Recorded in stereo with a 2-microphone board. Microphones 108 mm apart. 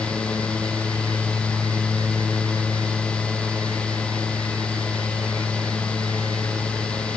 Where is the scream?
No scream in this recording.